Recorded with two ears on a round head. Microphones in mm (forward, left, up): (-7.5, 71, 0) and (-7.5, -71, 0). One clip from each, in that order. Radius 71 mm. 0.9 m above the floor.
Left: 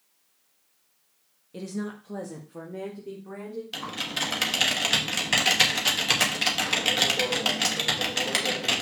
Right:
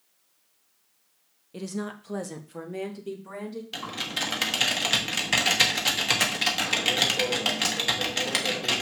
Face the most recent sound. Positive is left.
turn(degrees=5)  # may be behind; listen again after turning